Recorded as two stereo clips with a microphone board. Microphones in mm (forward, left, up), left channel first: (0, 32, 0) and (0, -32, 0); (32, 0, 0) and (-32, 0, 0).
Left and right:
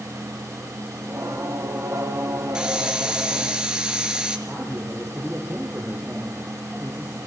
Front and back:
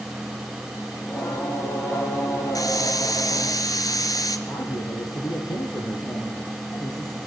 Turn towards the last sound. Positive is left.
turn(degrees=-15)